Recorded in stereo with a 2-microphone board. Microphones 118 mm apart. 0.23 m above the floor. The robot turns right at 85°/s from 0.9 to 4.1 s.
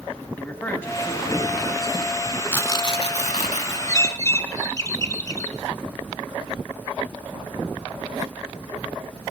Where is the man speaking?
15° left, 1.4 m; by 2.4 s 145° left, 1.4 m.